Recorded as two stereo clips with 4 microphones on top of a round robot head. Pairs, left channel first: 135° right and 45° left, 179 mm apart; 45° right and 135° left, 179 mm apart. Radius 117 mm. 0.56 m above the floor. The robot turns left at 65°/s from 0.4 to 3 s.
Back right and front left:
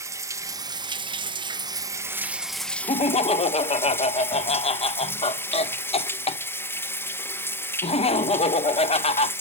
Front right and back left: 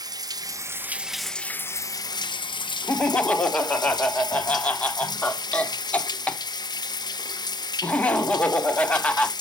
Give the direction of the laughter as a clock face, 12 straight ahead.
4 o'clock.